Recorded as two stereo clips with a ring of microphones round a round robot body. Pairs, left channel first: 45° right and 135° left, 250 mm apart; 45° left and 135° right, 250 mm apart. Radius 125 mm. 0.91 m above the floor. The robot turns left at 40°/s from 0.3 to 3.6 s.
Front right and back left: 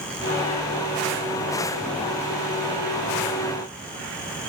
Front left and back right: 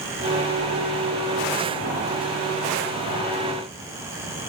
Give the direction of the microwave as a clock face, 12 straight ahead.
I don't hear a microwave.